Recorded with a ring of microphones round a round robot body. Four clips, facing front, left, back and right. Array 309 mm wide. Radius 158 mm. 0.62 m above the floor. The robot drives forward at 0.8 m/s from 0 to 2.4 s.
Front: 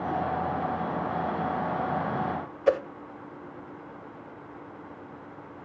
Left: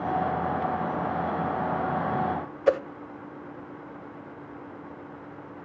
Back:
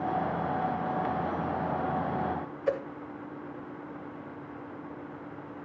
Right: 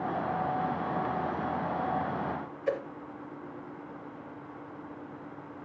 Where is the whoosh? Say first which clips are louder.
Left 9 dB, front 6 dB; 60° left, 0.6 m.